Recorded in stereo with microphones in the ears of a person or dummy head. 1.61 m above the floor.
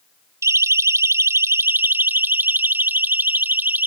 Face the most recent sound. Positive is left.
turn(degrees=-10)  # may be behind; listen again after turning